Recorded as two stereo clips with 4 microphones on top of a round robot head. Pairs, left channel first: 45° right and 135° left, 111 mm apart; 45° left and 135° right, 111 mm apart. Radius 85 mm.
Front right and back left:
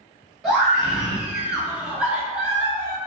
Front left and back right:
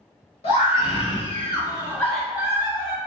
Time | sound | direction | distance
0.4 | a scream | 50° left | 1.7 m